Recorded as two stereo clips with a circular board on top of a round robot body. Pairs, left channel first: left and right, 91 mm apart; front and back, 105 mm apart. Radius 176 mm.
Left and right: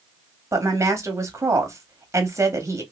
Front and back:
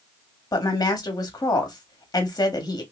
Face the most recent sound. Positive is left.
turn(degrees=-40)